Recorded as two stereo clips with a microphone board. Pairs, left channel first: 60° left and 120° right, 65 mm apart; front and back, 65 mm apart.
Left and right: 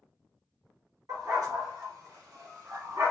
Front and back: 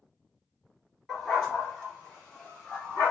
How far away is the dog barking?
About 3 m.